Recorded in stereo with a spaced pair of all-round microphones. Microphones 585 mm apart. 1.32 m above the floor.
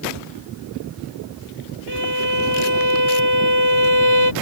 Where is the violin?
45° left (ahead or behind).